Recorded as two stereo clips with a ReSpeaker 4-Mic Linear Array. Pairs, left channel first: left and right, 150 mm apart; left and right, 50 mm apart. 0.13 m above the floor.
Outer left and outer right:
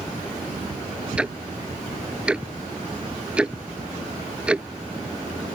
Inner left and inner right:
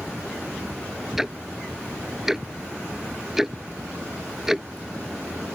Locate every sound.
1.2 s ticking: 5° right (ahead or behind)